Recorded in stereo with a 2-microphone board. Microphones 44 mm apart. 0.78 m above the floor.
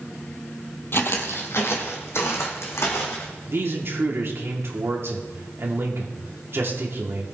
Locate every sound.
0.9 s footsteps: 55° left (ahead or behind), 1.5 m; by 3.3 s 70° left (ahead or behind), 3.5 m
3.5 s a man speaking: 60° right (ahead or behind), 2.0 m